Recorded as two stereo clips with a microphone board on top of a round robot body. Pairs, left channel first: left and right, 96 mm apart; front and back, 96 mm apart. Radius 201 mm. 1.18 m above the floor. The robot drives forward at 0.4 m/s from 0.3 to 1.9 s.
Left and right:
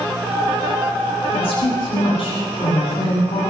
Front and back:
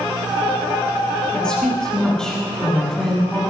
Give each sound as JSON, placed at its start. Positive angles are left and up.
{"t": 1.3, "sound": "a woman speaking", "azimuth_deg": 80, "distance_m": 7.0}